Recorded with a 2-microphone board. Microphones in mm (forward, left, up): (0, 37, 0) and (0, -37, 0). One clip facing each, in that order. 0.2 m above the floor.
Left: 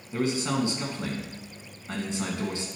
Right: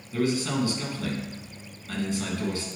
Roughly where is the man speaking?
Left.